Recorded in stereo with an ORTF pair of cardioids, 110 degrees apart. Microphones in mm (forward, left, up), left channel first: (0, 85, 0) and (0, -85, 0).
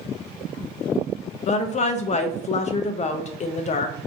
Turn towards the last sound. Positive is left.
turn(degrees=45)